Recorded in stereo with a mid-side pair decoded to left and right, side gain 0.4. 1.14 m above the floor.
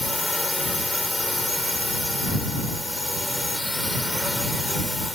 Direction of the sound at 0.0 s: 5° left.